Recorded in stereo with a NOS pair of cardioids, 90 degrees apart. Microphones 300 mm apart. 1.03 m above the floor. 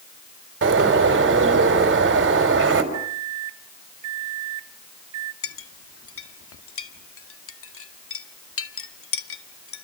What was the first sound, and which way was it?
A bird, 40° right.